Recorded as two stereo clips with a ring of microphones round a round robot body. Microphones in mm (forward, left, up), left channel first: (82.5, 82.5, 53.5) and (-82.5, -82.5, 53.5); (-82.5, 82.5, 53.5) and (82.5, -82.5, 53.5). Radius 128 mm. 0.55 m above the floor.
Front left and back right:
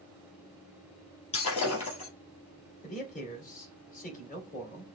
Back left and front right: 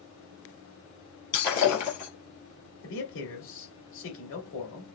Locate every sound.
1.3 s breaking glass: 110° left, 3 m
2.8 s a man speaking: 100° left, 2.5 m